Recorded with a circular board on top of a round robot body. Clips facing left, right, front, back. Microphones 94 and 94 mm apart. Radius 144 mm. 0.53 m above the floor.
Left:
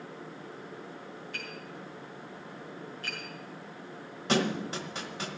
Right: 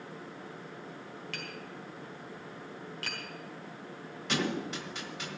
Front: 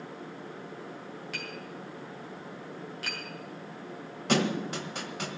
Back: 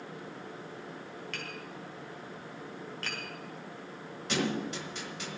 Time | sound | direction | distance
1.3 | tapping | 85° right | 3.5 m
4.3 | a thud | 35° left | 1.2 m